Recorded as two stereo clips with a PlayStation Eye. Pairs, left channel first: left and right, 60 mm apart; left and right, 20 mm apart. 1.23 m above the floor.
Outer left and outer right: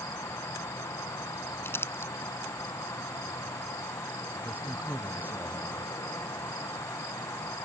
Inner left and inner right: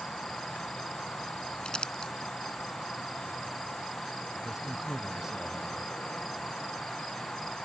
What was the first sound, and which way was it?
An insect, 75° left (ahead or behind).